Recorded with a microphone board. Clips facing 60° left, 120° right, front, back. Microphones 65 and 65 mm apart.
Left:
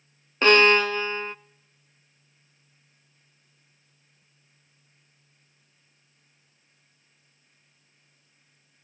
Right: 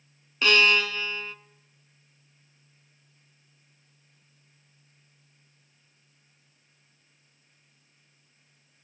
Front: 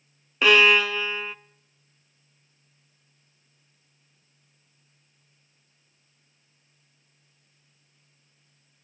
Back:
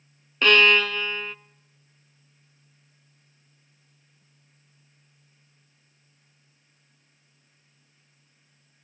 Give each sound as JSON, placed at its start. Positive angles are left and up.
{"t": 0.4, "sound": "a violin", "azimuth_deg": 80, "distance_m": 0.5}